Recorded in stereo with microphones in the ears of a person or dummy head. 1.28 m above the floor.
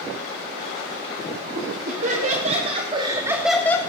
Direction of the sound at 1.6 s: 55° right (ahead or behind).